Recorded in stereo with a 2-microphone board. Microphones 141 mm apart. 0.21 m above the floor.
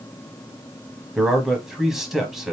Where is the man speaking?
5° right (ahead or behind), 1.1 m.